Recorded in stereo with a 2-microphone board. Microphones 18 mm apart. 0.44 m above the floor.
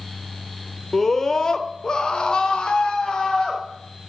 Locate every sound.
0.9 s a scream: 20° left (ahead or behind), 1.2 m; by 3.6 s 50° left (ahead or behind), 2.0 m